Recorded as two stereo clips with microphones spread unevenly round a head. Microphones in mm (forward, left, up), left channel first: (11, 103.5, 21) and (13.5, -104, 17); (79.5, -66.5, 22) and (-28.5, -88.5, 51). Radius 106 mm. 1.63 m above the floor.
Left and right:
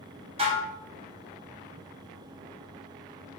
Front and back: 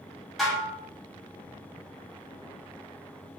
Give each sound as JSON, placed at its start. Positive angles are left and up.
{"t": 0.4, "sound": "dishes clattering", "azimuth_deg": -110, "distance_m": 0.6}